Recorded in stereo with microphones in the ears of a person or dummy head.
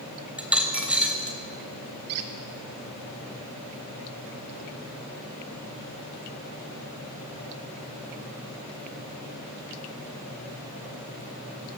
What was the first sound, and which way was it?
A dropped coin, 10° right (ahead or behind).